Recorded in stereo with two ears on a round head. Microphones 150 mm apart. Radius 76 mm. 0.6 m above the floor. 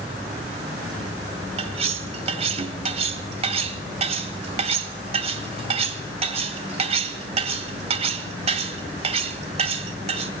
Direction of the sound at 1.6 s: 40° right (ahead or behind).